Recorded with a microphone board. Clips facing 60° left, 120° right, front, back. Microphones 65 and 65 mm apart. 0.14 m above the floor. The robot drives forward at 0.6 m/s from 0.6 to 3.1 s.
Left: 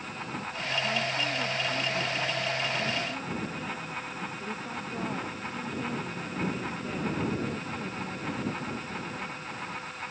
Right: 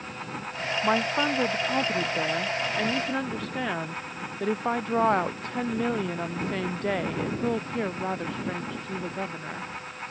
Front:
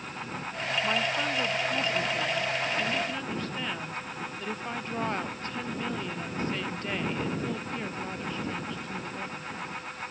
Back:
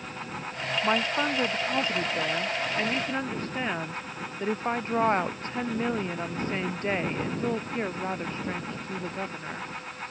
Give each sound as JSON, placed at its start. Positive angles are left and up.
{"t": 0.8, "sound": "a woman speaking", "azimuth_deg": -120}